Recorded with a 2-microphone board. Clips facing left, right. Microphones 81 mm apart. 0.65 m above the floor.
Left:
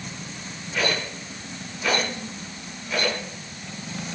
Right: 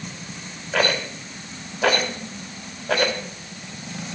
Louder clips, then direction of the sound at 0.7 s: Right 4 dB; 80° right.